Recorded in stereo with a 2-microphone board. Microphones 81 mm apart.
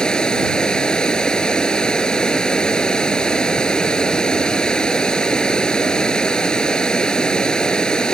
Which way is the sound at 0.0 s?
10° left (ahead or behind).